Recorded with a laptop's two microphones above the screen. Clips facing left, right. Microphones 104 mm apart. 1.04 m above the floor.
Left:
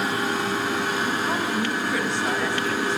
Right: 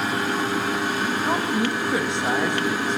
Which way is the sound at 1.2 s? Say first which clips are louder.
Right 2 dB; 20° right (ahead or behind).